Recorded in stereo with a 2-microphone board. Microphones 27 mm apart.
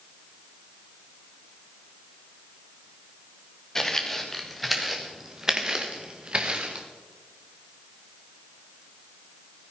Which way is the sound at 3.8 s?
15° left (ahead or behind).